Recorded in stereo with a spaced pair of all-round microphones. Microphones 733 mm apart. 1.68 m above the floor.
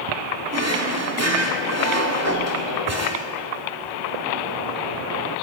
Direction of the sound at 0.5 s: 20° right (ahead or behind).